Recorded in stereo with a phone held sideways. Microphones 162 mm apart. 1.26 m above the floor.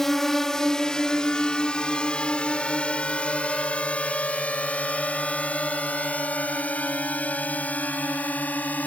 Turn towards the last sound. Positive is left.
turn(degrees=10)  # may be behind; listen again after turning